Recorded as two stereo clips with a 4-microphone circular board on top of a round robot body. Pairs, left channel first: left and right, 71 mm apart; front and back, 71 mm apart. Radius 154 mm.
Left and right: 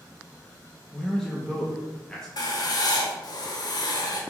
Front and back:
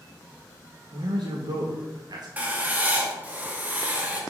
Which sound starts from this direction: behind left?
Writing, at 2.4 s.